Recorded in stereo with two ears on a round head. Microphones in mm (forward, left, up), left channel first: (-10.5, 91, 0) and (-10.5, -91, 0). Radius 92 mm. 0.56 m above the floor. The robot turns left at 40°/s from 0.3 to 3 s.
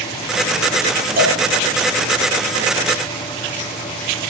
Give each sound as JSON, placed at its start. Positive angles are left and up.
{"t": 1.2, "sound": "a cowbell", "side_deg": -50, "distance_m": 5.5}